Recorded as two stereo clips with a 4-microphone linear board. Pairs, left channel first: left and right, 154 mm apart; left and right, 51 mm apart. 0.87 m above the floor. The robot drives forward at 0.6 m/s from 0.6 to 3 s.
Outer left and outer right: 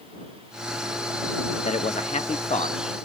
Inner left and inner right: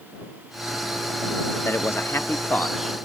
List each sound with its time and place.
1.6 s a man speaking: 45° left (ahead or behind), 1.1 m; by 2.8 s 40° left (ahead or behind), 1.2 m